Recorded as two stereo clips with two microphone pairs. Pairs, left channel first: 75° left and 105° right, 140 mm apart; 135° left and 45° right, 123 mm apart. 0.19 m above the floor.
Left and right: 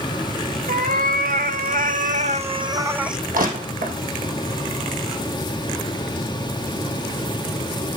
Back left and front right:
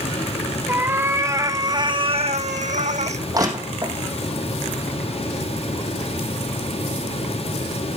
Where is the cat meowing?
120° right, 2 m; by 3.2 s 20° right, 1.0 m.